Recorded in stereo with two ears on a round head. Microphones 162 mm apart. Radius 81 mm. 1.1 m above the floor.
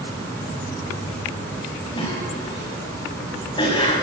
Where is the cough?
25° left (ahead or behind), 7.5 m.